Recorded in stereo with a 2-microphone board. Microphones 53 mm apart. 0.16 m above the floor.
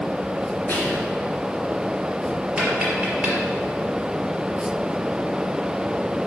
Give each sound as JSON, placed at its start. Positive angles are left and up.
{"t": 0.7, "sound": "whispering", "side_deg": 35, "distance_m": 3.0}
{"t": 2.6, "sound": "tapping", "side_deg": -15, "distance_m": 4.0}